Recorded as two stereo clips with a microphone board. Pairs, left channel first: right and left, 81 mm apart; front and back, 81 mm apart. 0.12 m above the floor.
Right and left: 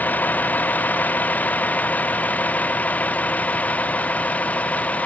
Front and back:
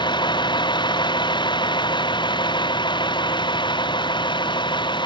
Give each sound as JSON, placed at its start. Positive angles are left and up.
{"t": 0.0, "sound": "a vehicle", "azimuth_deg": -20}